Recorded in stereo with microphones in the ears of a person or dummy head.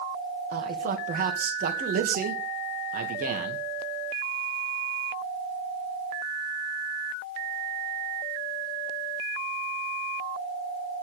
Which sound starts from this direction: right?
A man speaking, at 0.5 s.